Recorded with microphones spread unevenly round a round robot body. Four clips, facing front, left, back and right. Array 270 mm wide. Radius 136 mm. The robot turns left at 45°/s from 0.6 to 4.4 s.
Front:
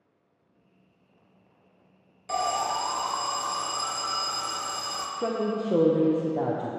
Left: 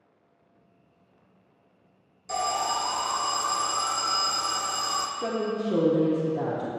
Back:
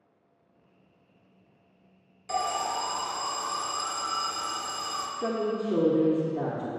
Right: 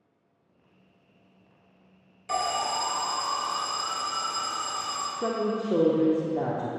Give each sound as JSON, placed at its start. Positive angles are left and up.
{"t": 2.3, "sound": "an alarm", "azimuth_deg": -170, "distance_m": 0.8}
{"t": 5.2, "sound": "a woman speaking", "azimuth_deg": -170, "distance_m": 0.8}